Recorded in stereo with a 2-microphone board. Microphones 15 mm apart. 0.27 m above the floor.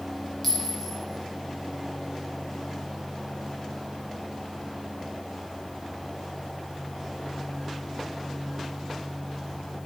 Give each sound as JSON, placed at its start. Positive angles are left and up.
{"t": 0.4, "sound": "a clink", "side_deg": 15, "distance_m": 1.8}